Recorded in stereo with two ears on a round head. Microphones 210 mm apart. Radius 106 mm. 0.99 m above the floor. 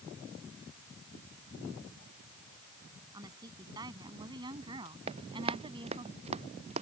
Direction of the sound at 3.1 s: 15° right (ahead or behind).